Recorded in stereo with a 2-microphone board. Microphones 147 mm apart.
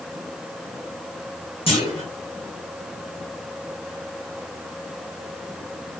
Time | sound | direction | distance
1.7 | a clunk | 40° left (ahead or behind) | 1.3 m